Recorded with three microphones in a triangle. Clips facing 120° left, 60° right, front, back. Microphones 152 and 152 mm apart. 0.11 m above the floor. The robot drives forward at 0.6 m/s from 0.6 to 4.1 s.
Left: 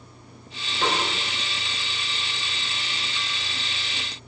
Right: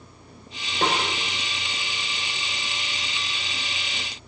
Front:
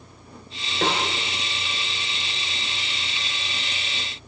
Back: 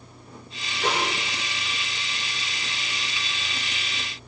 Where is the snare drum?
15° right, 5 m.